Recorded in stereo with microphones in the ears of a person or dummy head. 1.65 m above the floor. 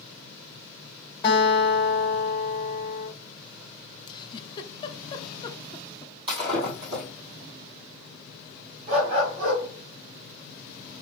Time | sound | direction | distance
1.2 | a guitar | 25° left (ahead or behind) | 1.8 m
4.1 | a giggle | 25° left (ahead or behind) | 0.5 m
6.3 | breaking glass | 30° right (ahead or behind) | 2 m
8.9 | a dog barking | 40° right (ahead or behind) | 2.5 m